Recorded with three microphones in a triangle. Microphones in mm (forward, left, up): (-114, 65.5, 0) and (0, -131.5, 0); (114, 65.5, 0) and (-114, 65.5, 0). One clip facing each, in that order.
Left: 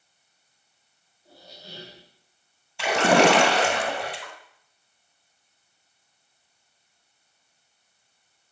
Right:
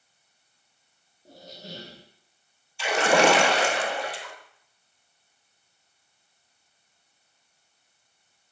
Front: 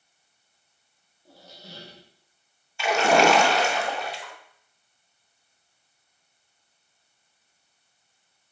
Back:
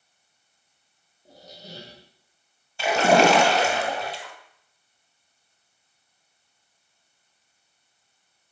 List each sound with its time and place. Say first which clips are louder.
1.2 s a squeak: right 5 dB, back 3 dB; 105° right, 2.5 m
2.8 s a splash: left 2 dB, back 2 dB; 130° left, 1.8 m